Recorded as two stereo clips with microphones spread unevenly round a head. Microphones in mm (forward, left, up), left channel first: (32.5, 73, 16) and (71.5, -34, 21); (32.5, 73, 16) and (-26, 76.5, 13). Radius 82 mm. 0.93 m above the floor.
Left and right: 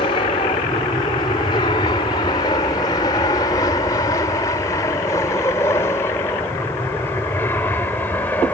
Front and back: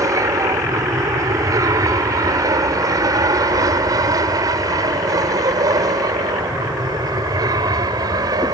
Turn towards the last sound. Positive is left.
turn(degrees=-170)